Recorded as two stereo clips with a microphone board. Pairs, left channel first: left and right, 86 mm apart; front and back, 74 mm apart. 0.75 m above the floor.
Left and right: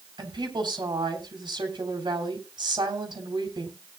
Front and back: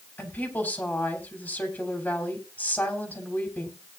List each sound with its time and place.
0.2 s a woman speaking: 65° right, 3.5 m